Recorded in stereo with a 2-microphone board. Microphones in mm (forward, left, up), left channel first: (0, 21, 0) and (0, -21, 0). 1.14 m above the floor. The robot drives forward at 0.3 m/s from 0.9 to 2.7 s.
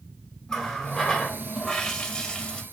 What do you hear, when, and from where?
0.5 s a running tap: 10° left (ahead or behind), 0.9 m; by 2.6 s 25° left (ahead or behind), 0.5 m